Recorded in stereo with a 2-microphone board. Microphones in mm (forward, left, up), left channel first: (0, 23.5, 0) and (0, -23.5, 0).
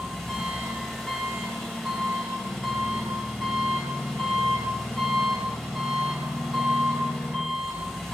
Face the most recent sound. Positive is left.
turn(degrees=10)  # may be behind; listen again after turning